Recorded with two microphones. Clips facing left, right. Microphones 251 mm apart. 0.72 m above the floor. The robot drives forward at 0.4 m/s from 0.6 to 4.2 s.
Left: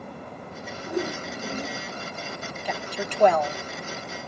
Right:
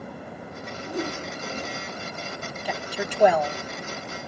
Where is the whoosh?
15° left (ahead or behind), 3 m; by 1.8 s 10° left (ahead or behind), 3 m.